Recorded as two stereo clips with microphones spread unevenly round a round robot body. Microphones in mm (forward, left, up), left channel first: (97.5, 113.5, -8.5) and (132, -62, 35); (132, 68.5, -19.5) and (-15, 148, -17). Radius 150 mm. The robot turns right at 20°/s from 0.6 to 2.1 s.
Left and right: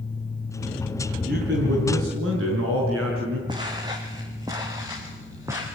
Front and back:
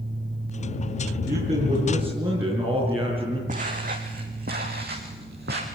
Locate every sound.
1.3 s a man speaking: 140° right, 6 m; by 3.4 s 125° right, 6 m
3.5 s footsteps: 150° right, 1.6 m; by 5.7 s 160° right, 3 m